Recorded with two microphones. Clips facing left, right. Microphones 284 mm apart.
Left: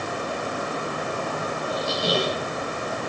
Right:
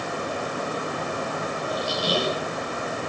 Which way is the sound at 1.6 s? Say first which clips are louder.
Left 2 dB; 25° left (ahead or behind).